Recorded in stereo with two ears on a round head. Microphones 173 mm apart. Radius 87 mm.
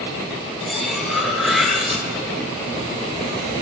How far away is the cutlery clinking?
About 0.9 m.